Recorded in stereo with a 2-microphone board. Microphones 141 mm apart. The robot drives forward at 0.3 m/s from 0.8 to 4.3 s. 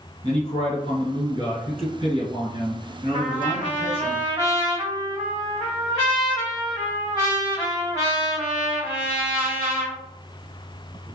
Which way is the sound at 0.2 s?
40° right (ahead or behind).